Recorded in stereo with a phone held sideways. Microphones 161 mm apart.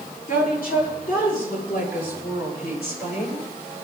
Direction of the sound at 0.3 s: 60° left (ahead or behind).